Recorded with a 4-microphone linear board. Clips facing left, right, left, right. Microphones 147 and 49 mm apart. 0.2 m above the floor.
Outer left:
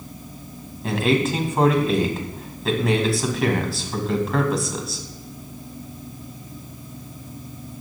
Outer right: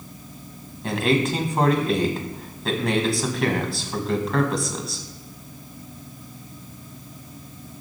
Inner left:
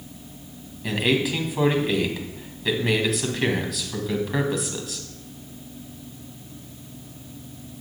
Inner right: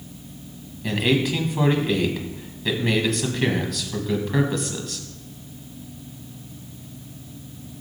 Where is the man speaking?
Centre (ahead or behind), 1.6 m.